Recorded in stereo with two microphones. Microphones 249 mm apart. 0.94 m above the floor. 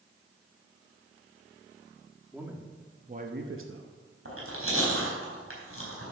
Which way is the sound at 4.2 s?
65° right (ahead or behind).